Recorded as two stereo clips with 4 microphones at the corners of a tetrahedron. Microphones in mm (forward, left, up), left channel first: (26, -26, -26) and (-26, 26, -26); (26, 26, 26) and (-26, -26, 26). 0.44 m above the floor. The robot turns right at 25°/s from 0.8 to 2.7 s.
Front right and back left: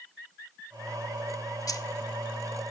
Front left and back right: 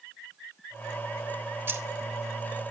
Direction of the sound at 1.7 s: 80° right.